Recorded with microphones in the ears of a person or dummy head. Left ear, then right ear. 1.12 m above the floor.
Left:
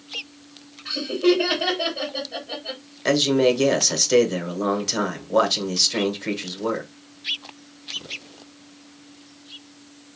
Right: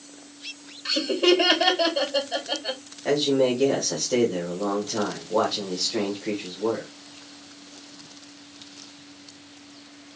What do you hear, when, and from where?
0.8 s laughter: 80° right, 1.6 m
3.0 s a man speaking: 50° left (ahead or behind), 1.1 m